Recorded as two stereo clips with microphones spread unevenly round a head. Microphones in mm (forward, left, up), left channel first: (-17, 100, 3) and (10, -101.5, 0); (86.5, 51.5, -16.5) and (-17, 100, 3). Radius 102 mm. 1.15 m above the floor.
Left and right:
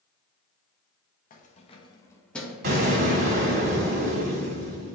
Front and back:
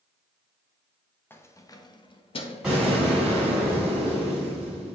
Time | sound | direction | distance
1.3 | keys jangling | 45° left | 1.0 m
2.6 | an explosion | 125° right | 2 m